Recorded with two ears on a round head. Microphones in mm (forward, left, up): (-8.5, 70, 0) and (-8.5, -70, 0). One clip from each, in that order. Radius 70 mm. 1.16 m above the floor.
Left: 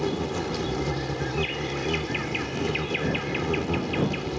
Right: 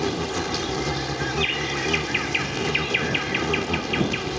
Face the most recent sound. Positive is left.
turn(degrees=-45)  # may be behind; listen again after turning